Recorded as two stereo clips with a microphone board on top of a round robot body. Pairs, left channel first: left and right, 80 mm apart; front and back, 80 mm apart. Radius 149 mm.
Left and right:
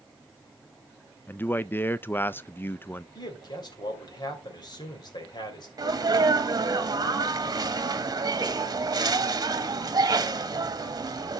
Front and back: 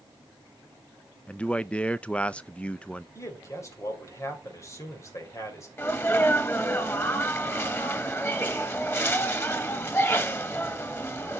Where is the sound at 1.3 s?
60° left, 0.5 m.